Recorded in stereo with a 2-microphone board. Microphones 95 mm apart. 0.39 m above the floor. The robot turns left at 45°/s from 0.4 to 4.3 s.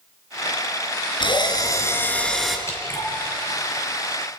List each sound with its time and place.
1.2 s a drill: 60° left, 2.5 m; by 2.6 s 5° right, 2.5 m
2.7 s dripping: 30° left (ahead or behind), 4.5 m; by 3.1 s 10° left (ahead or behind), 4.5 m